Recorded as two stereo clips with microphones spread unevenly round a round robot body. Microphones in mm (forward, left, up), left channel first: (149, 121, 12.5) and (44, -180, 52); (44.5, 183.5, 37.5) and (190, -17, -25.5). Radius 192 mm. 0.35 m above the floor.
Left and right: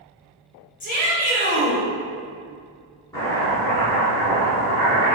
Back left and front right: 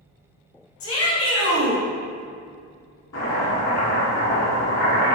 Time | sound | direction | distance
0.8 | a shout | 115° left | 1.6 m
3.1 | chopping | 155° left | 1.9 m